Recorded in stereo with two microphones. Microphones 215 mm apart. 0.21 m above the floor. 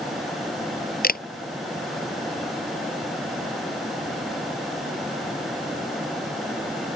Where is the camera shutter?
45° left (ahead or behind).